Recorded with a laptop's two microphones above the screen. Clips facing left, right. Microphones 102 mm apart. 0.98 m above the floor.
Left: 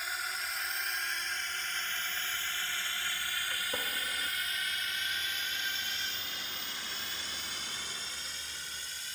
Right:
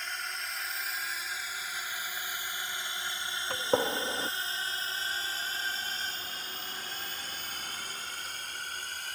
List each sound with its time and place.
0.0 s a drone: 5° left (ahead or behind); by 9.2 s 55° right (ahead or behind)
3.5 s a gunshot: 65° right (ahead or behind)